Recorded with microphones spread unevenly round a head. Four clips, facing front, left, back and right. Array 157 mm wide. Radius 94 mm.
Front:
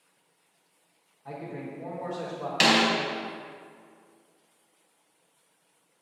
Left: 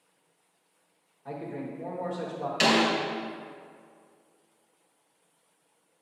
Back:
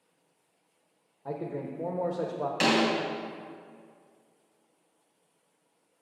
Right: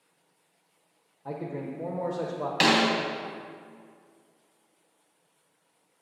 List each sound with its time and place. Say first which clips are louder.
1.2 s a man speaking: right 2 dB, back 3 dB; 160° right, 1.1 m
2.6 s a snare drum: even, front 2 dB; 55° right, 3 m